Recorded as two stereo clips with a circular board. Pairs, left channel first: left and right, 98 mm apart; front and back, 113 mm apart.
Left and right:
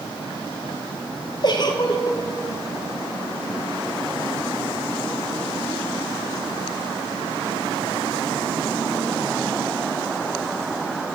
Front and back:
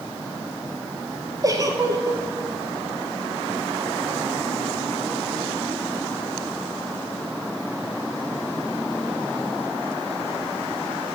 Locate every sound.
1.4 s a giggle: 125° left, 1.3 m